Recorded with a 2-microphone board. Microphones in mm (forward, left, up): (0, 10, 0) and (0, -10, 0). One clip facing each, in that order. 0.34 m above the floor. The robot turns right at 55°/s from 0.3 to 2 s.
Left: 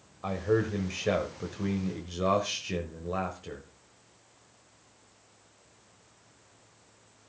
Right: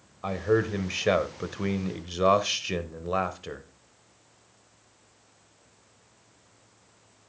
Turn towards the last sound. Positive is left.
turn(degrees=-60)